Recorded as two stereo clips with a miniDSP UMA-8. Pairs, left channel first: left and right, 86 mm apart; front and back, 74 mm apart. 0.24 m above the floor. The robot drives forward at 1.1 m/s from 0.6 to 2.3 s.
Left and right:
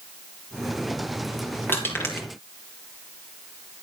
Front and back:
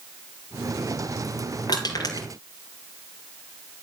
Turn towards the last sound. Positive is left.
turn(degrees=30)